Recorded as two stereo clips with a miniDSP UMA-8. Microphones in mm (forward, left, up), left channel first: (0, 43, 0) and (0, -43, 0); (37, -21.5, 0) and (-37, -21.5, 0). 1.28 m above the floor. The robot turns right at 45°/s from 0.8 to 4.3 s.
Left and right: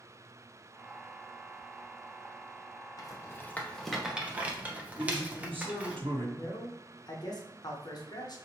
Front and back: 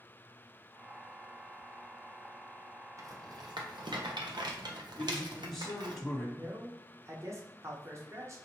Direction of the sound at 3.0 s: 135° left.